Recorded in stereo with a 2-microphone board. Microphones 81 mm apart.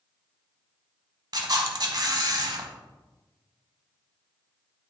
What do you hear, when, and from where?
1.3 s a camera shutter: 55° right (ahead or behind), 0.9 m